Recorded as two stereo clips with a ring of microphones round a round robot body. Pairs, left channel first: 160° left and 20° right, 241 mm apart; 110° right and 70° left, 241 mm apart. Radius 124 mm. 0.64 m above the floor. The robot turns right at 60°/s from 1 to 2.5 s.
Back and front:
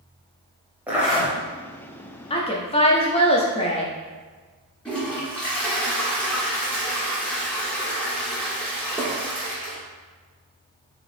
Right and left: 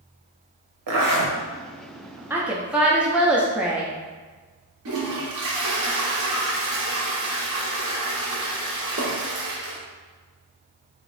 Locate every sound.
0.9 s a zipper: 60° left, 1.0 m; by 1.4 s 85° left, 1.0 m
2.3 s a woman speaking: 135° left, 0.5 m; by 3.9 s 145° left, 0.5 m
4.8 s a toilet flushing: 70° left, 1.3 m